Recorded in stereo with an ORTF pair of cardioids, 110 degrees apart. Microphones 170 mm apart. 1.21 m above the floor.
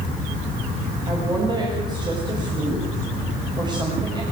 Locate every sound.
1.1 s a woman speaking: 25° right, 6 m